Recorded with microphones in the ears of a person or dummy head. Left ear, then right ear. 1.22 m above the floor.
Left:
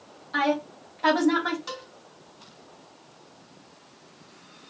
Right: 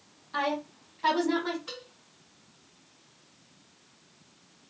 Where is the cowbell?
55° left (ahead or behind), 1.7 m.